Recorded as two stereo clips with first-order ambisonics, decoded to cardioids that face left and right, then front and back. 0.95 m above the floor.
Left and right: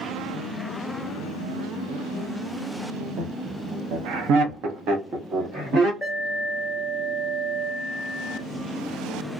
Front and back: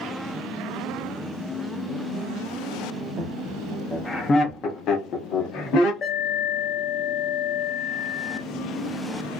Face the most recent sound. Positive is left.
turn(degrees=-10)